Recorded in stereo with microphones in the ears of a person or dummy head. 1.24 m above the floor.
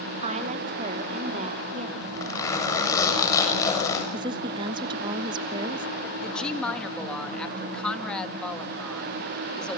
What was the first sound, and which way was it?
A woman speaking, 45° right (ahead or behind).